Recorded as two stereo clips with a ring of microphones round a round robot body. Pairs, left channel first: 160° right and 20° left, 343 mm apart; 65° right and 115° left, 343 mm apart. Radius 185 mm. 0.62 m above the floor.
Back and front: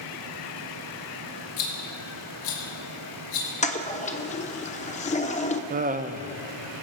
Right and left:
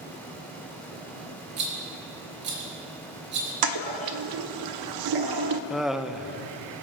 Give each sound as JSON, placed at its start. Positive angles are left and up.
{"t": 1.6, "sound": "a rattle", "azimuth_deg": 175, "distance_m": 3.5}
{"t": 3.6, "sound": "a toilet flushing", "azimuth_deg": 130, "distance_m": 0.8}
{"t": 5.7, "sound": "laughter", "azimuth_deg": 25, "distance_m": 0.6}